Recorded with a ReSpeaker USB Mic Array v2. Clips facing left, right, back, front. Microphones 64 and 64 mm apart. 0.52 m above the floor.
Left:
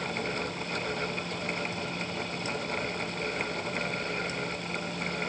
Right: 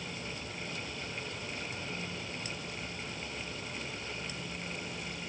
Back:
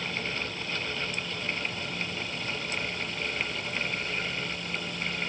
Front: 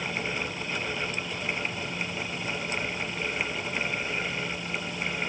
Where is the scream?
I don't hear a scream.